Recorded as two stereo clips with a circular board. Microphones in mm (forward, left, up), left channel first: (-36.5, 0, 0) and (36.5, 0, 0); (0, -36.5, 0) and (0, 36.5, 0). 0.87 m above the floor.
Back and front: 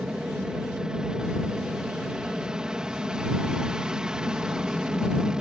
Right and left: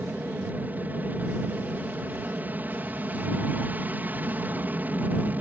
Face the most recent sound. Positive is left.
turn(degrees=65)